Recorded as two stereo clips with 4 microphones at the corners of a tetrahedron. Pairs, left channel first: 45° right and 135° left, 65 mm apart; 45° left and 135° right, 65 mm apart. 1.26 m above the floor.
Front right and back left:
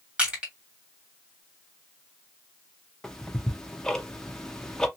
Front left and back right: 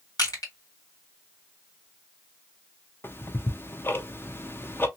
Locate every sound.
0.2 s crushing: 65° left, 1.9 m
3.0 s ticking: 30° left, 0.5 m